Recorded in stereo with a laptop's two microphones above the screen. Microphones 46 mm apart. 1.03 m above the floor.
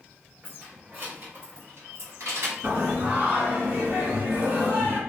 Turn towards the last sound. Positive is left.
turn(degrees=-50)  # may be behind; listen again after turning